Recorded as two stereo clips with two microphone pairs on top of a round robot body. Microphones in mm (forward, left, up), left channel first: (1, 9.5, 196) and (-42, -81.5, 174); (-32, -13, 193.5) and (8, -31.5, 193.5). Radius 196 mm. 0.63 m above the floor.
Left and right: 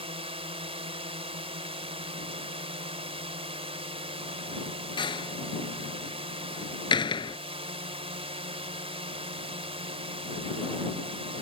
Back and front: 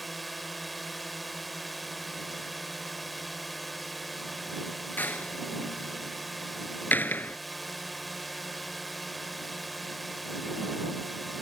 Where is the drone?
115° right.